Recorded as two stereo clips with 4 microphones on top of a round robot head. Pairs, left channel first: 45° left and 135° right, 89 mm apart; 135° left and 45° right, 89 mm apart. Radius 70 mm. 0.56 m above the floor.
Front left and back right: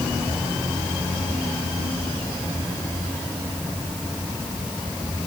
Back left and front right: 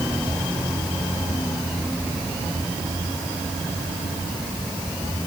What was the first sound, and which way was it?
Only background noise.